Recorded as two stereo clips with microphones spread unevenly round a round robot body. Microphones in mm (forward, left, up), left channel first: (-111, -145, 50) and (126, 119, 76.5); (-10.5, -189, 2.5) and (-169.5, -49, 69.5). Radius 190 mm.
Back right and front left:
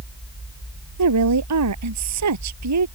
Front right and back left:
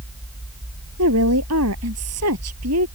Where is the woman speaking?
95° left.